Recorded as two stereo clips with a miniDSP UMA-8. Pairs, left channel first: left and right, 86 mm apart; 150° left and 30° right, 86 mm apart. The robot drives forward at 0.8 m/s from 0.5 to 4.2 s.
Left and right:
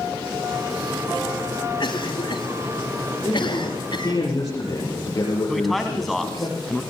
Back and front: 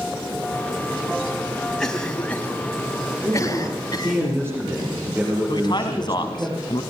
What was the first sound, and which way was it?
A cough, 65° left.